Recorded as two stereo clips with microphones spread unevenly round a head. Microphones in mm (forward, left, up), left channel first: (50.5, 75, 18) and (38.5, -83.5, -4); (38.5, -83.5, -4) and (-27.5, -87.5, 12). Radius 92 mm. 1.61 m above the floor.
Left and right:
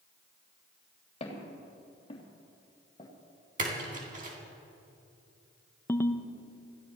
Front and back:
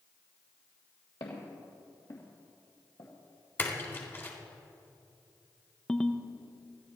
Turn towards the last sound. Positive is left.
turn(degrees=95)